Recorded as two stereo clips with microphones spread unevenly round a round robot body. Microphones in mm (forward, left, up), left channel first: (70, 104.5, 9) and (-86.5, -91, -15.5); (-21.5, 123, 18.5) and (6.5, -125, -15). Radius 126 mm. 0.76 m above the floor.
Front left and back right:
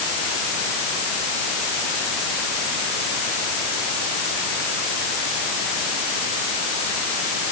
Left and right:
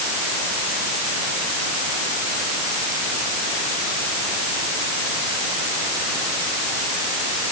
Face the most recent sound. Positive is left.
No sound to turn to.